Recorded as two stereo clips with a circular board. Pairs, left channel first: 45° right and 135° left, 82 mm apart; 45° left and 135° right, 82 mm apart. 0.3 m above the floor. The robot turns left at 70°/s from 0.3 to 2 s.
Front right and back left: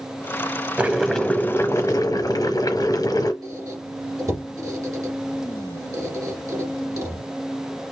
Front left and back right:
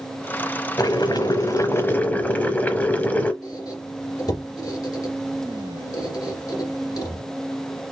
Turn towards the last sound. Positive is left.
turn(degrees=85)